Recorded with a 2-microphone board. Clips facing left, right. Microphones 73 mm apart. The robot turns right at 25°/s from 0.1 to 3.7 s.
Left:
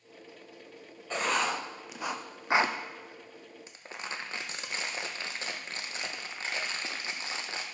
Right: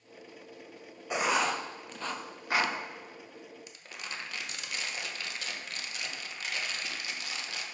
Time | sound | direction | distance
1.1 | writing | 15° right (ahead or behind) | 0.5 m
3.7 | crumpling | 30° left (ahead or behind) | 0.8 m